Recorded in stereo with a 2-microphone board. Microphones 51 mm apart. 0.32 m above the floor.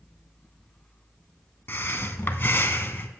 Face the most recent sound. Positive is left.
turn(degrees=45)  # may be behind; listen again after turning